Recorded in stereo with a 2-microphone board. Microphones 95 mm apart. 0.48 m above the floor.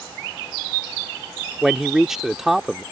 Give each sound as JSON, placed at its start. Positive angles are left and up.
{"t": 1.6, "sound": "a man speaking", "side_deg": -5}